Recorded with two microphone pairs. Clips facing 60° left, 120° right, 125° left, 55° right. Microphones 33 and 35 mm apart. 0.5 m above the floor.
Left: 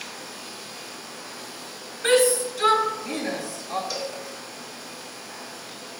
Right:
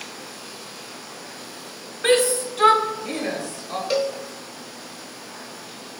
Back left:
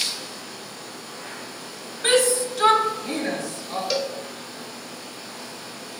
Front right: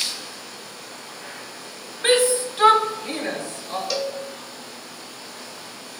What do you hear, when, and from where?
2.0 s a shout: 105° right, 1.4 m; by 3.8 s 95° right, 2 m
3.9 s a cowbell: 150° right, 0.6 m